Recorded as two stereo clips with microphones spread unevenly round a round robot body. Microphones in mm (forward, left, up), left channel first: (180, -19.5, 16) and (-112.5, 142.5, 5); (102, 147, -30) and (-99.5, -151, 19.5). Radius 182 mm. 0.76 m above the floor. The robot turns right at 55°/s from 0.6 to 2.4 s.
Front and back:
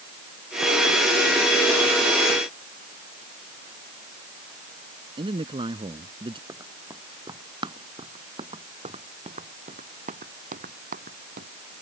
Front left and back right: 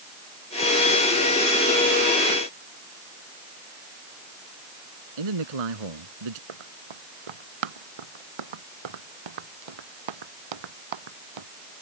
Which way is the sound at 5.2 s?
130° right.